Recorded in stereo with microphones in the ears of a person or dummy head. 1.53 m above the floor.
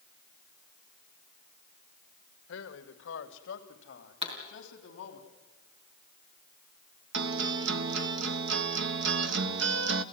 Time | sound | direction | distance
2.5 | a man speaking | 70° left (ahead or behind) | 1.9 m
4.2 | a pop | 35° right (ahead or behind) | 4 m
7.1 | a guitar | 65° right (ahead or behind) | 1.0 m